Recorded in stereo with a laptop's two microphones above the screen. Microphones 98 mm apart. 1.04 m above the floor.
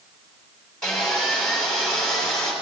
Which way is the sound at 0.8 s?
5° left (ahead or behind).